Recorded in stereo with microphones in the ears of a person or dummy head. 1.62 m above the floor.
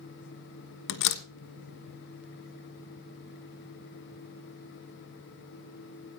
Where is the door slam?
60° left (ahead or behind), 1.2 m.